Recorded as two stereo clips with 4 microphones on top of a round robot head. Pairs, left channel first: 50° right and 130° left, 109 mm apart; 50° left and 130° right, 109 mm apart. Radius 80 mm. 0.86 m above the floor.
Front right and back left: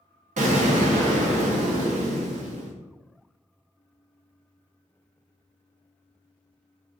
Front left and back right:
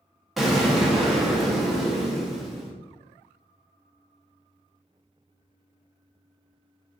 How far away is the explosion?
About 0.6 m.